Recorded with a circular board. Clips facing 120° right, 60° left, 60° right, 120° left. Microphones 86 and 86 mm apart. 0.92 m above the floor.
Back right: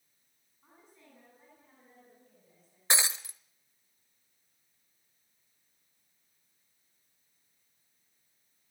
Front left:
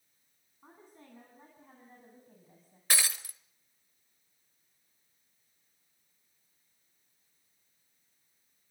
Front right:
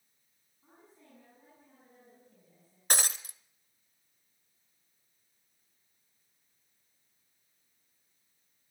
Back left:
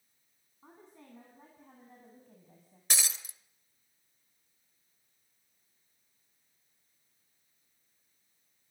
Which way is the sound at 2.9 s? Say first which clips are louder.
Back right 2 dB, front right 5 dB; 60° right.